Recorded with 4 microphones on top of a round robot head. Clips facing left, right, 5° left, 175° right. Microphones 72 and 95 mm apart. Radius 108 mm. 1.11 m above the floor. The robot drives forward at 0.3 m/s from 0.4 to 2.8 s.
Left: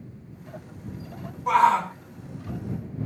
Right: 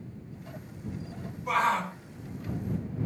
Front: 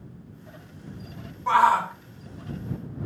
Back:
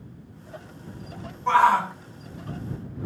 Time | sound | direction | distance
1.5 | a shout | 80° left | 1.3 m